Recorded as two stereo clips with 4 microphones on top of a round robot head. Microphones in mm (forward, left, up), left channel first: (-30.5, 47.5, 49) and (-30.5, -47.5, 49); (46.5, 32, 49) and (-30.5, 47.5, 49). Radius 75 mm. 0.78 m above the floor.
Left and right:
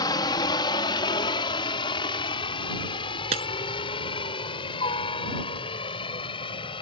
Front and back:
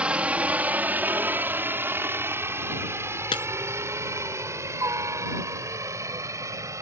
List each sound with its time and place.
0.0 s a helicopter: 100° left; by 6.8 s 120° left
3.3 s breaking glass: 55° right